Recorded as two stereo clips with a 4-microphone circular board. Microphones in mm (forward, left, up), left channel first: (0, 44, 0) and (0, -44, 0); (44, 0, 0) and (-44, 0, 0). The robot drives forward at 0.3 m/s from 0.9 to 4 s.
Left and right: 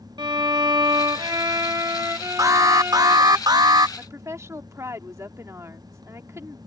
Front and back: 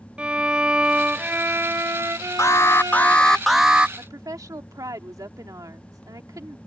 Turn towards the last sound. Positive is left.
turn(degrees=-140)